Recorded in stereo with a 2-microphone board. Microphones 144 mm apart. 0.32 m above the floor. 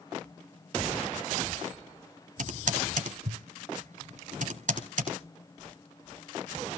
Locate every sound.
2.4 s typing on a keyboard: 60° right (ahead or behind), 1.7 m